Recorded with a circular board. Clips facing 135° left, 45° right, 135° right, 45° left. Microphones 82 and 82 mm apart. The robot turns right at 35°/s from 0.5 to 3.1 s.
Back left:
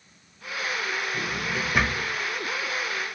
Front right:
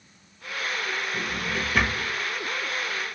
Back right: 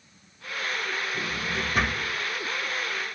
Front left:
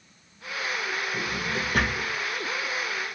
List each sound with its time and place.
1.1 s a drawer: 40° left, 1.1 m; by 2.1 s 70° left, 1.1 m